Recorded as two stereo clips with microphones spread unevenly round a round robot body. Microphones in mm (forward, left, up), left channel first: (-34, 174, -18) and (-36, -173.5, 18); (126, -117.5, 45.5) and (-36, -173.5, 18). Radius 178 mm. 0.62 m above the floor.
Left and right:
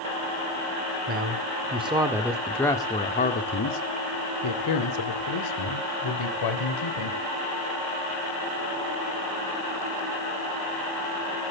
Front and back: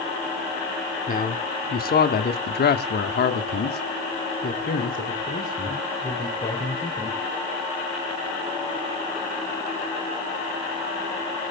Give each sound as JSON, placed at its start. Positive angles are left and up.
{"t": 1.1, "sound": "a man speaking", "azimuth_deg": -25, "distance_m": 2.5}